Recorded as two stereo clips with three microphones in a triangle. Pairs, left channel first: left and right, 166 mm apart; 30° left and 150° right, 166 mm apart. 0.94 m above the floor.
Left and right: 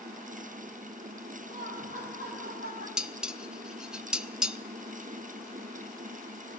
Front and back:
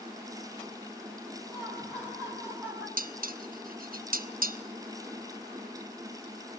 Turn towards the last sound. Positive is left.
turn(degrees=-175)